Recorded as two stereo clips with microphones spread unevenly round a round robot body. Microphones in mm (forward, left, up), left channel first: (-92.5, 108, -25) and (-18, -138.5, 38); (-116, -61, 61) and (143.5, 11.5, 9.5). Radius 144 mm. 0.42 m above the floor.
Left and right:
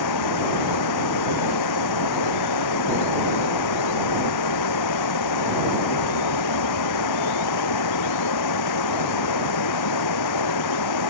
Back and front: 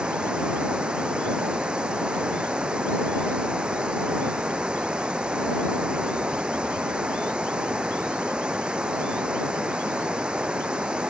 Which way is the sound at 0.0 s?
105° left.